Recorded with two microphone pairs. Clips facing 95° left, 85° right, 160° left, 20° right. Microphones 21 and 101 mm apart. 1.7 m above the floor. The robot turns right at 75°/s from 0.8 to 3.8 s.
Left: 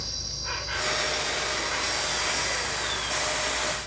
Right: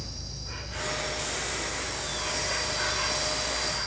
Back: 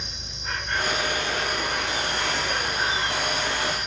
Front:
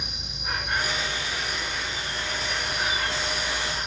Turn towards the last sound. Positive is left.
turn(degrees=-80)